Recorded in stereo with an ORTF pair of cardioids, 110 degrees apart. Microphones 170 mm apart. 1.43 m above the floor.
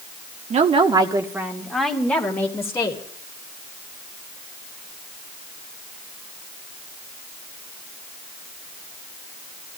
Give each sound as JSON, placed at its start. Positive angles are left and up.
{"t": 0.5, "sound": "a woman speaking", "azimuth_deg": -45, "distance_m": 1.7}